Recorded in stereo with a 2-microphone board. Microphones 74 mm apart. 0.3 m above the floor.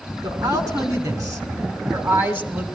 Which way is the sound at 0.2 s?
60° right (ahead or behind).